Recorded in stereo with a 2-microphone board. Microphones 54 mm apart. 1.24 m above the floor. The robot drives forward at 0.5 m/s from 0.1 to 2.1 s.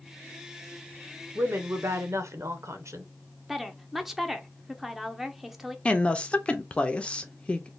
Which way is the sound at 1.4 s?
50° right (ahead or behind).